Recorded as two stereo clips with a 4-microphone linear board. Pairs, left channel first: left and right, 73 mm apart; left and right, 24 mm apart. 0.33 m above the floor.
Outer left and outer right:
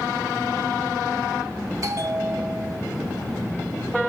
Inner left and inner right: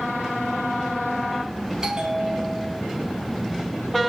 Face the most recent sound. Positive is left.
turn(degrees=-50)  # may be behind; listen again after turning